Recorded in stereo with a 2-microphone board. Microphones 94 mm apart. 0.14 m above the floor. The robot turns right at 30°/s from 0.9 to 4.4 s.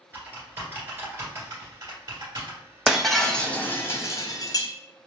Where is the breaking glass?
5° right, 0.5 m; by 4.7 s 40° left, 0.5 m.